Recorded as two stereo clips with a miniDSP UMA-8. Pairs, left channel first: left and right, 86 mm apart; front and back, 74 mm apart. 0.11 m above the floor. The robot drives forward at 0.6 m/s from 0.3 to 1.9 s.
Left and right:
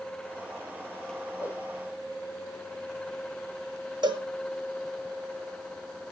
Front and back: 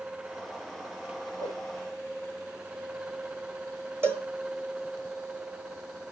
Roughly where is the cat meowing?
I don't hear a cat meowing.